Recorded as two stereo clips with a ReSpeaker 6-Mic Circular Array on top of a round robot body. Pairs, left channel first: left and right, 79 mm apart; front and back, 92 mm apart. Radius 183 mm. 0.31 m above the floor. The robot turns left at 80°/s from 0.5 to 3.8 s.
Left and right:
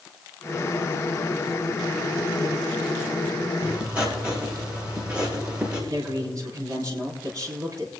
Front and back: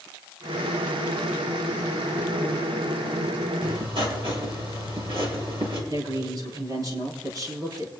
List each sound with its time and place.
3.6 s writing: 145° right, 5 m; by 5.8 s 165° right, 5 m
5.9 s a man speaking: 135° right, 5 m